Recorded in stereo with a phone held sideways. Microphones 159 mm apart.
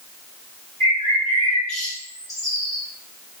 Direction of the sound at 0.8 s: 20° left (ahead or behind).